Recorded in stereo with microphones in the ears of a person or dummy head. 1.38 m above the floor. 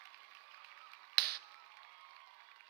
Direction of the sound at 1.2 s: 50° right (ahead or behind).